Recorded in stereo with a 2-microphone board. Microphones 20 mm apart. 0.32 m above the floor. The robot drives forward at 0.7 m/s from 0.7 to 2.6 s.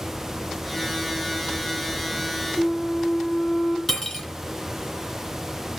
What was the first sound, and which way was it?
A flute, 80° left.